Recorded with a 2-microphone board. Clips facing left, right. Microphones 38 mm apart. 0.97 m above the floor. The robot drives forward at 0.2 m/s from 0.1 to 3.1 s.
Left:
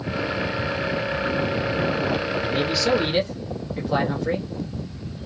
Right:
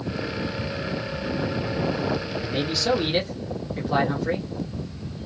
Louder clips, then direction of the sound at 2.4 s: Left 3 dB; 5° left (ahead or behind).